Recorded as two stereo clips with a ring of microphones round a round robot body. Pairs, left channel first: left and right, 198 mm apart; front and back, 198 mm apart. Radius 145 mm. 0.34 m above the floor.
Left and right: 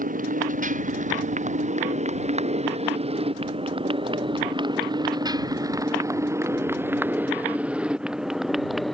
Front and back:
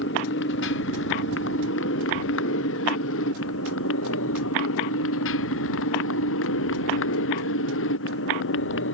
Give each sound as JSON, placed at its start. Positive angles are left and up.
{"t": 0.0, "sound": "a motorcycle", "azimuth_deg": -45}